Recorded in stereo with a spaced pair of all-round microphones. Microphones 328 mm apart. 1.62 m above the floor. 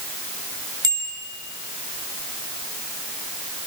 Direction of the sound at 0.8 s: 80° right.